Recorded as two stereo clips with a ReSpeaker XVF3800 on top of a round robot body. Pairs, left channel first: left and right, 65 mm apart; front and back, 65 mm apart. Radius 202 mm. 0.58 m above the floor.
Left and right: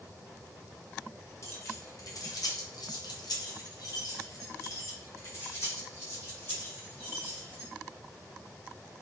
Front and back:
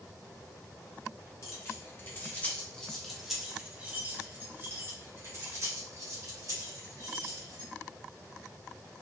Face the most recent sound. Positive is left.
turn(degrees=150)